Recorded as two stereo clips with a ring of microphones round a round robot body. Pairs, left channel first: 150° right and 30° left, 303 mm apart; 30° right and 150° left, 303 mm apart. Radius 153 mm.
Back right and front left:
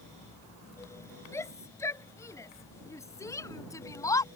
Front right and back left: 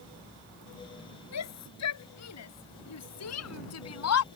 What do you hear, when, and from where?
1.3 s a shout: 70° right